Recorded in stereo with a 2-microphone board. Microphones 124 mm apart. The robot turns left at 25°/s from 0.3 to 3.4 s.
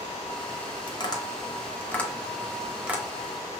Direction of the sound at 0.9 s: 35° left (ahead or behind).